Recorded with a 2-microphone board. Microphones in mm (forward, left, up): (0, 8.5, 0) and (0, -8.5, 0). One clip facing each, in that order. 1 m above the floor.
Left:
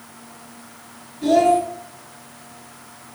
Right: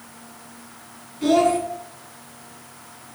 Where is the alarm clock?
No alarm clock in this recording.